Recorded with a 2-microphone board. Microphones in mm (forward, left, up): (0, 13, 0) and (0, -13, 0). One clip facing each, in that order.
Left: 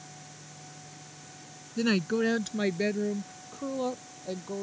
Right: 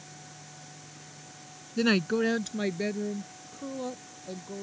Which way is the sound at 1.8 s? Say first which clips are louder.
Right 1 dB; 20° right (ahead or behind).